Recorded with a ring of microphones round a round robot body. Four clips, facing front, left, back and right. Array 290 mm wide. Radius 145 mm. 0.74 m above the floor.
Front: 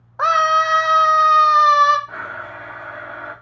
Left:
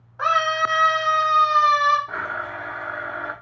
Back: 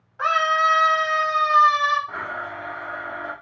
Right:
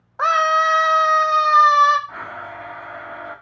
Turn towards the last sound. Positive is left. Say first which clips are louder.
# left 4 dB, even
turn(degrees=85)